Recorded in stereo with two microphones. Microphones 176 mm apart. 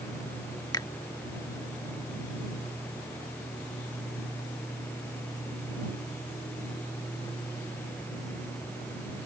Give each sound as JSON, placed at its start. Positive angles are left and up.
{"t": 0.7, "sound": "a finger snap", "side_deg": 20}